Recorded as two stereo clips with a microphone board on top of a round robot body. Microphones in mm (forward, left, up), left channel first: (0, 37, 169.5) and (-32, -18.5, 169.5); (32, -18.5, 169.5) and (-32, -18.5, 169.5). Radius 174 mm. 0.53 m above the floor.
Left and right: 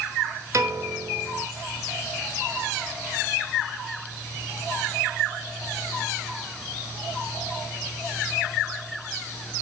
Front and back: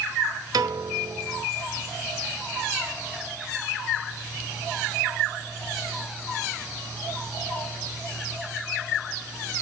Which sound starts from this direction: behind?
A piano, at 0.5 s.